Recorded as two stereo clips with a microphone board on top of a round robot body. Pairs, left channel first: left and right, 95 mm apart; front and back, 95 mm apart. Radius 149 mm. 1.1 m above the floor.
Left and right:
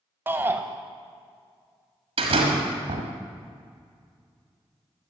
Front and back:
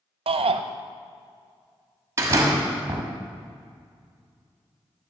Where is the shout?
160° right, 0.7 m.